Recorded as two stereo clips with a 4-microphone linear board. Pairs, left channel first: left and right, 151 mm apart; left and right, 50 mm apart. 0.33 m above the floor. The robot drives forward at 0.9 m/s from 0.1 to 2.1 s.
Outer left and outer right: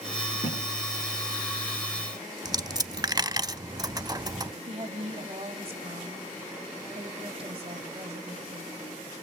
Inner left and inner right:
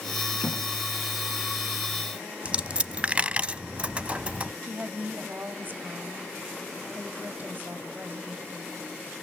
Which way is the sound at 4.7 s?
45° right (ahead or behind).